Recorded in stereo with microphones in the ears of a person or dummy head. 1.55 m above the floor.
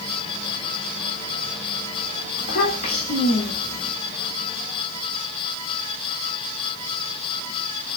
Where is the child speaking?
40° left (ahead or behind), 1.8 m.